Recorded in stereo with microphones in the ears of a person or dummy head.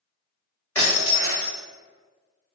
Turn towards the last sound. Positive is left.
turn(degrees=10)  # may be behind; listen again after turning